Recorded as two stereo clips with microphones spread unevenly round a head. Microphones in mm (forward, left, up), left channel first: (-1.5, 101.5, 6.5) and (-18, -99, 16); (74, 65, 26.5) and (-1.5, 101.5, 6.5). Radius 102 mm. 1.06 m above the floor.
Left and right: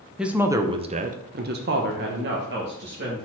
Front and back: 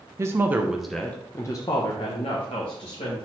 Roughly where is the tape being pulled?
I don't hear tape being pulled.